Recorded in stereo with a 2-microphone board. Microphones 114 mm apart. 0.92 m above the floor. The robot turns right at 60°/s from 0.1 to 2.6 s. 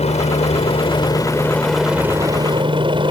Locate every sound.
0.0 s a helicopter: 80° left; by 3.1 s 130° right